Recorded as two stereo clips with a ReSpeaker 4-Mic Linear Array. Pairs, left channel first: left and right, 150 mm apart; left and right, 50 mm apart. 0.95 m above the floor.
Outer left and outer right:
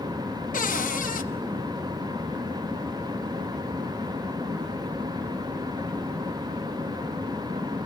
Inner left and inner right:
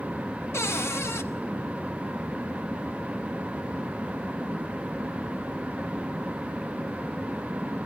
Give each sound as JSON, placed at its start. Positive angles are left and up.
{"t": 0.5, "sound": "a cupboard door", "side_deg": 65, "distance_m": 0.9}